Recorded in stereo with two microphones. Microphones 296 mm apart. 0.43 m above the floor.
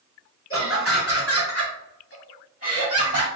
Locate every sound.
0.5 s laughter: 45° left (ahead or behind), 1.7 m; by 3.3 s 55° left (ahead or behind), 2.5 m